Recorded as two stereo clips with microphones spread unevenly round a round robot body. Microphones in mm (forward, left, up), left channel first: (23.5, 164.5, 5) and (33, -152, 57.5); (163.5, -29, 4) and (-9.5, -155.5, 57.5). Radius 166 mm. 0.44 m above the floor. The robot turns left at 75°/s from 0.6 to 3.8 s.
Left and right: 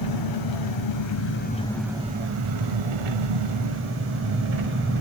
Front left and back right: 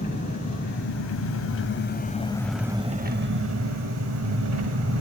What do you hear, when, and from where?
0.0 s an engine running: 95° left, 1.4 m; by 5.0 s 145° right, 1.4 m